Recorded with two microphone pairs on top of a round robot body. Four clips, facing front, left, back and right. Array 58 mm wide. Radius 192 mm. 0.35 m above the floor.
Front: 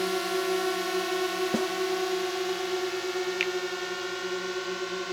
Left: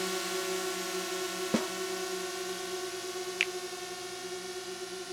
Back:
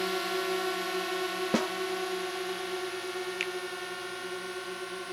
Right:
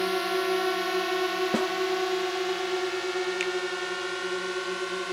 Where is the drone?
85° right; by 5.1 s 75° right.